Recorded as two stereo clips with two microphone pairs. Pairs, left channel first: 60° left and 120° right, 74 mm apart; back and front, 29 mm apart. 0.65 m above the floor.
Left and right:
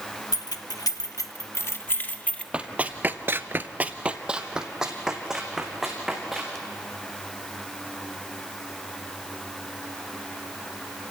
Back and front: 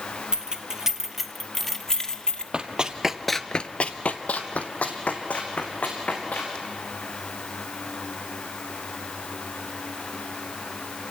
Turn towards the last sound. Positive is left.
turn(degrees=150)